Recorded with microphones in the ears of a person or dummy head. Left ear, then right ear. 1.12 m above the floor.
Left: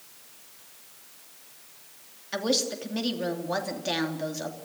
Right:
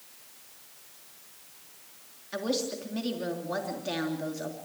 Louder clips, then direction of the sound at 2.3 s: Left 4 dB; 20° left (ahead or behind).